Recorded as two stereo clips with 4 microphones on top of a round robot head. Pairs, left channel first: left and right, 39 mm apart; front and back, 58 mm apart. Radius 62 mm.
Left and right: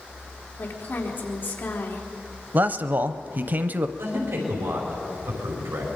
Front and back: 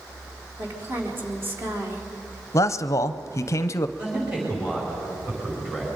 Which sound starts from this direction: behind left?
A woman speaking, at 0.6 s.